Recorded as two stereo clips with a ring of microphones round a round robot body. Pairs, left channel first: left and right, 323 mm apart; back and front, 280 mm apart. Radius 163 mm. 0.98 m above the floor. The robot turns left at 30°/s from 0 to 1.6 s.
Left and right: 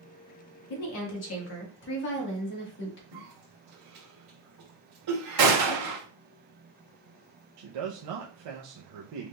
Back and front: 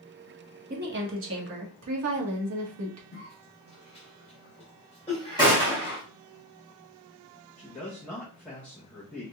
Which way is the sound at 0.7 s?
60° left.